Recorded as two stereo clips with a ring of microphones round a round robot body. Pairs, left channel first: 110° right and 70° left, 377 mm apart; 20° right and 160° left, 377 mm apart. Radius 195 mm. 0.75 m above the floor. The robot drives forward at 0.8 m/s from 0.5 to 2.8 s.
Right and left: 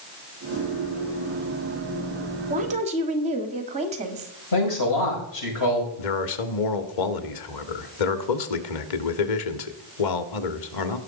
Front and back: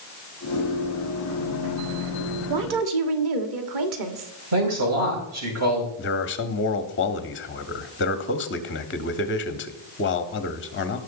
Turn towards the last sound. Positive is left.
turn(degrees=-85)